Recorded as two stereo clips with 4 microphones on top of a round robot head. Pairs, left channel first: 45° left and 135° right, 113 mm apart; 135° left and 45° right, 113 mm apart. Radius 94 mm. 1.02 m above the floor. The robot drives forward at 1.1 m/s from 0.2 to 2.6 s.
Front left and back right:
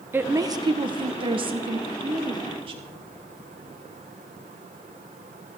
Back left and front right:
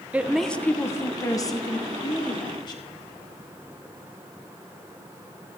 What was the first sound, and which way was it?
A woman speaking, 100° right.